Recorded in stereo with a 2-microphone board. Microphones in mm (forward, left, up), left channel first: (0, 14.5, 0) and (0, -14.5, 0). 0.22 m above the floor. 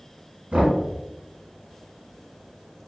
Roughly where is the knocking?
Right.